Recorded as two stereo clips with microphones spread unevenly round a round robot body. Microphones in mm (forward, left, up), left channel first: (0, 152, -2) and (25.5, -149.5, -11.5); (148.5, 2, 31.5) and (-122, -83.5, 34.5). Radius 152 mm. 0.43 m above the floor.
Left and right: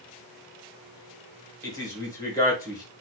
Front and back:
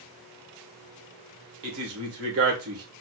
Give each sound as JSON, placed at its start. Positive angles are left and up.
{"t": 1.6, "sound": "a man speaking", "azimuth_deg": 175, "distance_m": 1.4}